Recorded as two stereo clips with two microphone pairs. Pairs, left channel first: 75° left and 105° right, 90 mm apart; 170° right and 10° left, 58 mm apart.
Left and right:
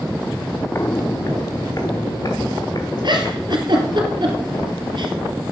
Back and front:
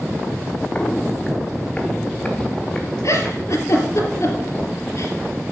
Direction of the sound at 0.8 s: 125° left.